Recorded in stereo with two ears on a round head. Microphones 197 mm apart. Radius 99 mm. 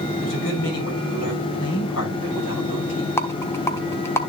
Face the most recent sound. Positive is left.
turn(degrees=10)  # may be behind; listen again after turning